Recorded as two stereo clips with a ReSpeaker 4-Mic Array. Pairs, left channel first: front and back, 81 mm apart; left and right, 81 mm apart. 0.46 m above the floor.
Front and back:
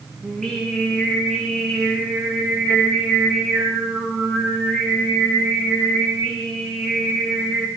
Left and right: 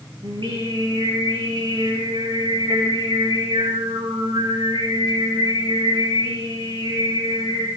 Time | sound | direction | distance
0.2 | singing | 85° right | 8 m